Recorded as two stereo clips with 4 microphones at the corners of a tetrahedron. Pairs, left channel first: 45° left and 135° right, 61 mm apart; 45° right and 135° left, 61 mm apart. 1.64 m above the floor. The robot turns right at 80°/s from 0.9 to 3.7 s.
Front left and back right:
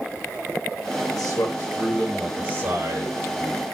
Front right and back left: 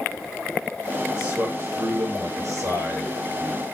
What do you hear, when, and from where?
1.1 s a man speaking: 60° left, 7.5 m; by 3.6 s 95° right, 7.5 m